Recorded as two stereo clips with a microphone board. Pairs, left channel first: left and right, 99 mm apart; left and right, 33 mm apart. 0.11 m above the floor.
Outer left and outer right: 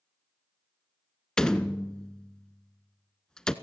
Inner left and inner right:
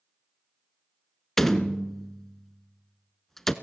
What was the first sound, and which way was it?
A door slam, 10° left (ahead or behind).